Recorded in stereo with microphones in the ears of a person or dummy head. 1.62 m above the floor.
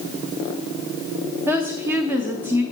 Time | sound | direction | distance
1.5 | a woman speaking | 10° right (ahead or behind) | 0.6 m